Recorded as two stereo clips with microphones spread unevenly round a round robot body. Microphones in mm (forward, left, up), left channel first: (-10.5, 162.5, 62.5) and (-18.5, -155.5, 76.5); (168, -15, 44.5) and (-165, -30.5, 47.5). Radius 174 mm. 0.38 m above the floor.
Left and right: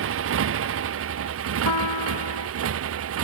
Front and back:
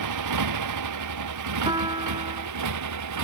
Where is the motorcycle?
140° right.